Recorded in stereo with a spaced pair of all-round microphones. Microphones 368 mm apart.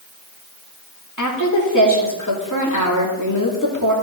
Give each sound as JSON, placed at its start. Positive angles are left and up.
{"t": 1.2, "sound": "a woman speaking", "side_deg": 55, "distance_m": 2.5}